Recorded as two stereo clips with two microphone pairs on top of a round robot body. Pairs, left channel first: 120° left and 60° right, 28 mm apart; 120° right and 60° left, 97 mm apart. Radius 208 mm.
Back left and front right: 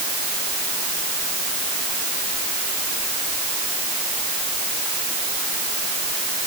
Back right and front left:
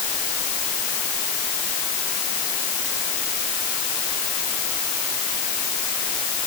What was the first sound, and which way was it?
Only background noise.